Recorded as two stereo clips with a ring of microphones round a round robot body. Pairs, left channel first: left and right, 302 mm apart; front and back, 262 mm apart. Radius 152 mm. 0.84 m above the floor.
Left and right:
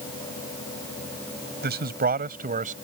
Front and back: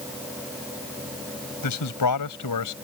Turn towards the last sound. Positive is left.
turn(degrees=-25)